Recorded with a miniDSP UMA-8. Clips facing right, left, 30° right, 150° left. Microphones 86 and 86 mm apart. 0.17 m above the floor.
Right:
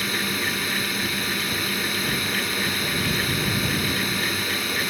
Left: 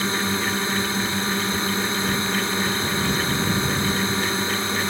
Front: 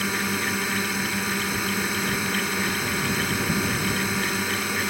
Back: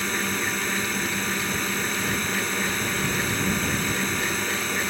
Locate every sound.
0.0 s a drone: 45° left